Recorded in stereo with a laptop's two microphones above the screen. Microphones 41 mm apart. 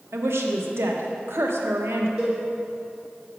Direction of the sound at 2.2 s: 15° right (ahead or behind).